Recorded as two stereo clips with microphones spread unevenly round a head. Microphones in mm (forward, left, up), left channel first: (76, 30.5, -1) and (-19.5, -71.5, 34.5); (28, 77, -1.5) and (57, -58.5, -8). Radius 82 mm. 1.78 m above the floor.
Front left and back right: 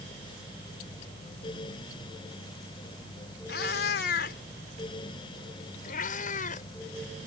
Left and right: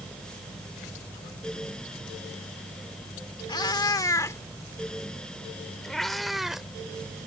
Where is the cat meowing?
60° left; by 6.7 s 10° left.